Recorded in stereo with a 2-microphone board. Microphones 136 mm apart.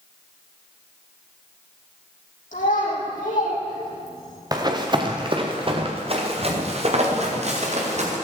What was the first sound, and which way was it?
A child speaking, 85° left.